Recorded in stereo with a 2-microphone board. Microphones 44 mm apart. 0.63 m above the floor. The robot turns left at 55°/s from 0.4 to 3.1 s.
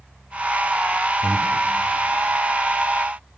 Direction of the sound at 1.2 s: 80° right.